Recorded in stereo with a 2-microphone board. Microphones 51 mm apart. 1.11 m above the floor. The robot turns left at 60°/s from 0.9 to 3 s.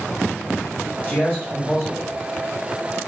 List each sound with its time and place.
1.1 s a man speaking: 35° left, 1.8 m; by 2.2 s 30° right, 1.8 m